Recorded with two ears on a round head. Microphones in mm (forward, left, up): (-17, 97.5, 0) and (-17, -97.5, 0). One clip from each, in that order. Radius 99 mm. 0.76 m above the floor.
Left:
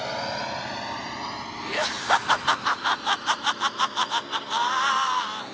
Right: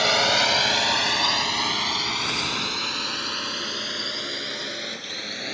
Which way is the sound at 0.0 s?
65° right (ahead or behind).